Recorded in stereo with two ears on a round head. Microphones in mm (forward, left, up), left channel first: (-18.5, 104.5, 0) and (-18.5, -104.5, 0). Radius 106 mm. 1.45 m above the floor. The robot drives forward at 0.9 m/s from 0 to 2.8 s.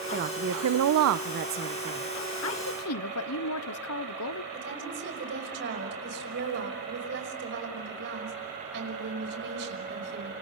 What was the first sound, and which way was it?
A woman speaking, 40° right (ahead or behind).